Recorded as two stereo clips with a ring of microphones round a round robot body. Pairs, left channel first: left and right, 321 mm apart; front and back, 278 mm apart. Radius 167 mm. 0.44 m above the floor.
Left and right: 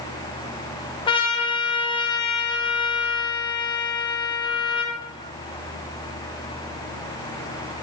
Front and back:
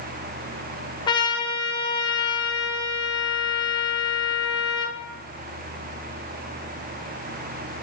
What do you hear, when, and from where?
1.1 s a trumpet: 45° left, 0.7 m